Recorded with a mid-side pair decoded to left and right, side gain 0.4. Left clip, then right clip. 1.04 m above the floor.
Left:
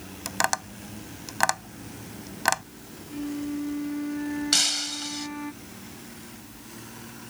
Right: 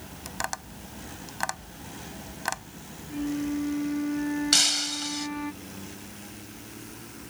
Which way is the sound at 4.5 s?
10° right.